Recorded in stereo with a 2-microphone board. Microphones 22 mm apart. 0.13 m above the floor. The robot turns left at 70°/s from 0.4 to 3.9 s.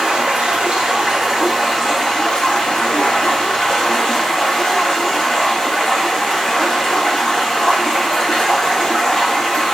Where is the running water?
95° right, 2.5 m; by 9.8 s 20° left, 2.5 m.